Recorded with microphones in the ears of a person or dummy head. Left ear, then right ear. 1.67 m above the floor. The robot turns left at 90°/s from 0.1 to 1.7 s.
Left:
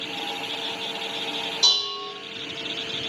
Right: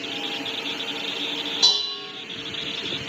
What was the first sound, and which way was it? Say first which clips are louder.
Dishes clattering: even; 30° right (ahead or behind).